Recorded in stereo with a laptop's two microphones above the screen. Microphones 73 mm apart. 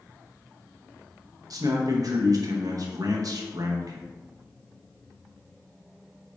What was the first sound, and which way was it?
A man speaking, 55° right (ahead or behind).